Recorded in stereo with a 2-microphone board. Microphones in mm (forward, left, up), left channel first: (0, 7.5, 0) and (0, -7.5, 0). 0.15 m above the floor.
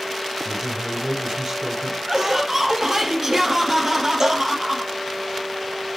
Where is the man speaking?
40° right (ahead or behind), 4 m.